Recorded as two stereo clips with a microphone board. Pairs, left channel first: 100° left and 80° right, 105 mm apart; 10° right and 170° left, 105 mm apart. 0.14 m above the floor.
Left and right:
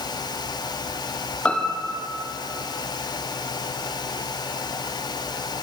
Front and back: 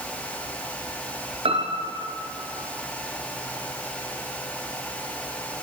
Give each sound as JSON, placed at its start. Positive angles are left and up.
{"t": 1.4, "sound": "a piano", "azimuth_deg": 180, "distance_m": 3.5}